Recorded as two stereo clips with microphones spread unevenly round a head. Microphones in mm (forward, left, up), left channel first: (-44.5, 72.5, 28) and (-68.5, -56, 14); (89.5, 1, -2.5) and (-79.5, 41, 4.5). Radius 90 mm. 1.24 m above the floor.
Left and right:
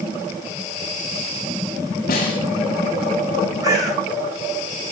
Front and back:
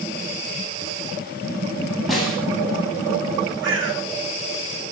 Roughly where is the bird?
Behind.